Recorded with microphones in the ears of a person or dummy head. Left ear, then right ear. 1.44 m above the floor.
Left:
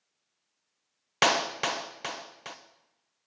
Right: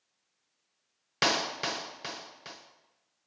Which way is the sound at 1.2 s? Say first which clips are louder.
Left 3 dB; 20° left (ahead or behind).